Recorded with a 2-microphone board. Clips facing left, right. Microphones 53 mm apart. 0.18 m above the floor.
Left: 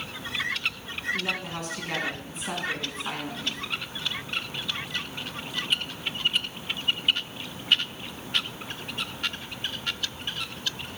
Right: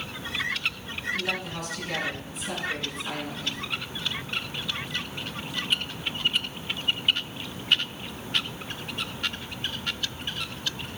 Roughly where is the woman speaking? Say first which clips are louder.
Even; left.